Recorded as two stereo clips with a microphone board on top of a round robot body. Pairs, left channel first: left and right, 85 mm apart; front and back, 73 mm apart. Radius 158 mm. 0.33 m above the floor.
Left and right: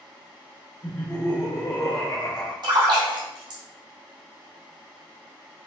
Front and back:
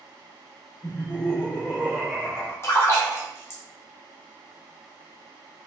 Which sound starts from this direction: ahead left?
Laughter, at 0.8 s.